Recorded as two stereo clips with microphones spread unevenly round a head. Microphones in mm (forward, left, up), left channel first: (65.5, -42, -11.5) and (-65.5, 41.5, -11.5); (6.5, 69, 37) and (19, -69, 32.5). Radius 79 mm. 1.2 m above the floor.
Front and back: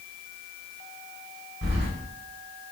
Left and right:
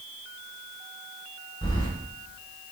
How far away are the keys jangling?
About 4 m.